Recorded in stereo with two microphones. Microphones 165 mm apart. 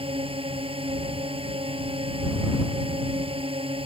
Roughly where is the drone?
Right.